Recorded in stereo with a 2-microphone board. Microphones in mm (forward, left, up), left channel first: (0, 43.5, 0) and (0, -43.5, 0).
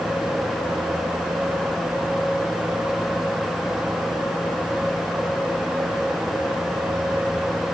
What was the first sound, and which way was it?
Only background noise.